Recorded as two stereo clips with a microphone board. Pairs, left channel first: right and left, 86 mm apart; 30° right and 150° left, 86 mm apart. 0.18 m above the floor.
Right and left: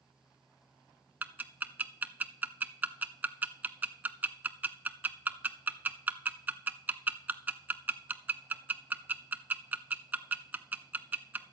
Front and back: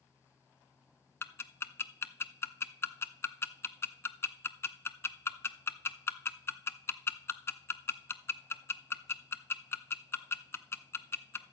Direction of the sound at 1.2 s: 25° left.